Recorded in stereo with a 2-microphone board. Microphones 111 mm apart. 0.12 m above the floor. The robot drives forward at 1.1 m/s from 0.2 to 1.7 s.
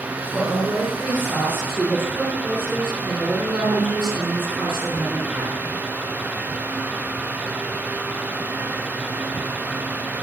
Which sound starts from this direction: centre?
A woman speaking, at 0.3 s.